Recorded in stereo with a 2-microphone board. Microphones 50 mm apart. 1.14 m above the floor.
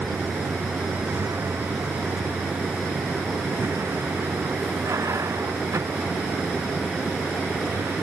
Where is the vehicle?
80° right.